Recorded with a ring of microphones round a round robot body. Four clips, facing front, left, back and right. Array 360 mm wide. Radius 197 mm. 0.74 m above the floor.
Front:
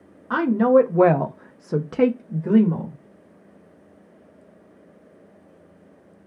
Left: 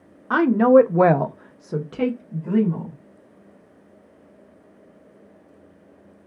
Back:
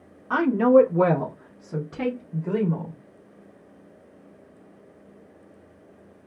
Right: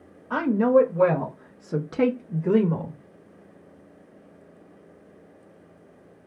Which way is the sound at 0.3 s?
85° left.